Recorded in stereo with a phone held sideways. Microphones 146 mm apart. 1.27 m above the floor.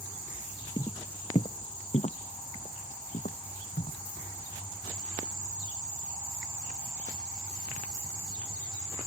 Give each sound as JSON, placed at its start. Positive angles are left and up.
{"t": 0.8, "sound": "footsteps", "side_deg": 30}